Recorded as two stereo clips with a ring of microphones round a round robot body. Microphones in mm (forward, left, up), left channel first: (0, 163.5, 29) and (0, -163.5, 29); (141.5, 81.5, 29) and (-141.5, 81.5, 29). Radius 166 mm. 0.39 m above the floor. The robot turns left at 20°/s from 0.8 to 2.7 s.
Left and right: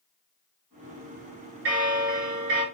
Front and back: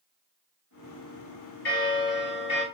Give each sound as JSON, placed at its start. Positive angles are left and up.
{"t": 1.6, "sound": "a bell", "azimuth_deg": -50, "distance_m": 1.9}